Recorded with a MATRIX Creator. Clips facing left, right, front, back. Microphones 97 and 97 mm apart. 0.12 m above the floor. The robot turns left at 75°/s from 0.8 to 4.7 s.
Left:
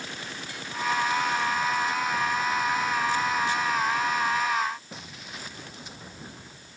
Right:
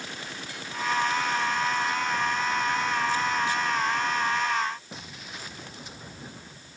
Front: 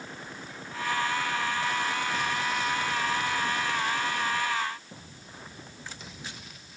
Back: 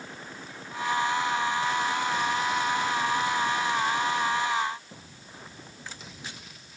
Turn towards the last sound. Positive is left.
No sound to turn to.